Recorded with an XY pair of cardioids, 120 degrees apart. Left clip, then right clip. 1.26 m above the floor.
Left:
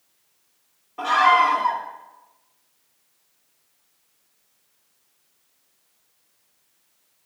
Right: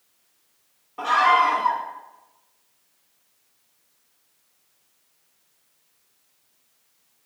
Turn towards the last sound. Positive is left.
turn(degrees=0)